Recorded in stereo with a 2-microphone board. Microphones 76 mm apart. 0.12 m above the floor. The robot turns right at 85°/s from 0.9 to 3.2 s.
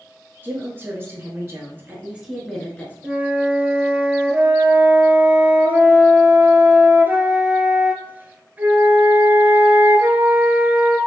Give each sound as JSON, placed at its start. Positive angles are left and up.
{"t": 0.4, "sound": "a woman speaking", "azimuth_deg": -130, "distance_m": 1.3}
{"t": 3.0, "sound": "a flute", "side_deg": -15, "distance_m": 0.6}